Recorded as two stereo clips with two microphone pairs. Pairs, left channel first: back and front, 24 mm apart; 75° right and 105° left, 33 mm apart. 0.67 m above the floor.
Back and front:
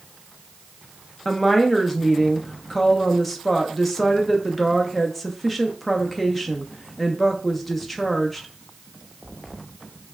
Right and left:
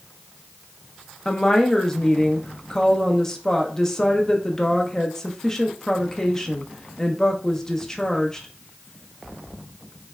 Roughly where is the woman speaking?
Right.